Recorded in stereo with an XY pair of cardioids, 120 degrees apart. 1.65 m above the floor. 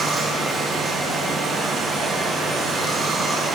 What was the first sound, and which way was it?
Running water, 35° right.